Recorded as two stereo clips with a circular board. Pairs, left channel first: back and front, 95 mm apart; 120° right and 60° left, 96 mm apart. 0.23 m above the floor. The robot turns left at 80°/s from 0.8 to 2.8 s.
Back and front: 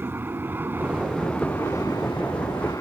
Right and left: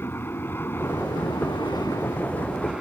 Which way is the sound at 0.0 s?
60° right.